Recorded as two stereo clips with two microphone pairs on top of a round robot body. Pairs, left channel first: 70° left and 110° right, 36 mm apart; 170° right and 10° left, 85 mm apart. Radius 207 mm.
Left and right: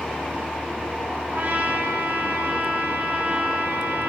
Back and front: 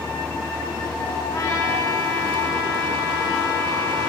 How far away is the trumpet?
About 9 m.